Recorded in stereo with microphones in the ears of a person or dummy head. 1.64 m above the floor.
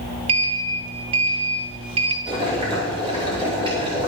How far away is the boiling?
About 5.5 m.